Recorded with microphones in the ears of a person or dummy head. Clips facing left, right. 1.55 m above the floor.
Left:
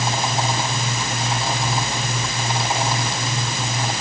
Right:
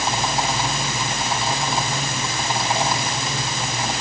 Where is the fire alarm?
I don't hear a fire alarm.